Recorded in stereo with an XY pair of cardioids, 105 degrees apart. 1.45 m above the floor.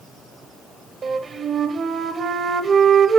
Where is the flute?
45° right, 0.7 m.